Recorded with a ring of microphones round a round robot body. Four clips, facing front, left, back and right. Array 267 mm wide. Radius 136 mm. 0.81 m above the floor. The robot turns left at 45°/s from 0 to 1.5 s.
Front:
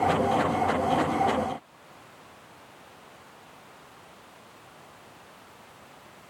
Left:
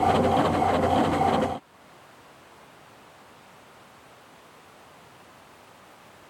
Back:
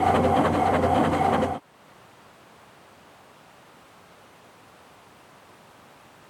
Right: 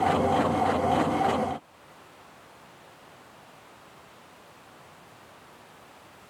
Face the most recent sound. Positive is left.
No sound to turn to.